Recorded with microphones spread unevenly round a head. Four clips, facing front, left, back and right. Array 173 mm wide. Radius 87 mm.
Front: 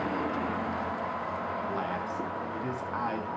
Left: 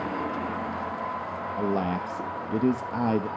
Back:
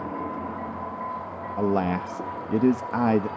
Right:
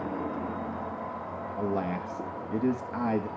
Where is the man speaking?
175° left, 0.9 m.